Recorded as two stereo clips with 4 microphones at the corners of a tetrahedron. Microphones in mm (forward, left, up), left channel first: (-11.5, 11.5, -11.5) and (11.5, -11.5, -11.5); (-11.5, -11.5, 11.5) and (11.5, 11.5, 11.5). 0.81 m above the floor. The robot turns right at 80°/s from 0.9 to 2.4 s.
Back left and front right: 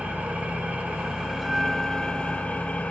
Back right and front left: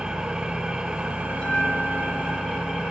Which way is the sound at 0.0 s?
15° right.